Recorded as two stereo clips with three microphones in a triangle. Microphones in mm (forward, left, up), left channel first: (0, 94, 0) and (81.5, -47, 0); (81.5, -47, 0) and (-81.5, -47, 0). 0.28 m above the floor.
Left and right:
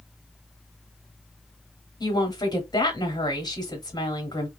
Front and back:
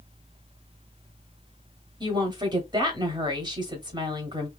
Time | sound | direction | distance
2.0 | a woman speaking | 155° left | 1.1 m